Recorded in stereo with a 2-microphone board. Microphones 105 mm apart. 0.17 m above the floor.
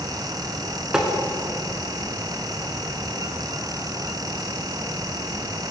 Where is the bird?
I don't hear a bird.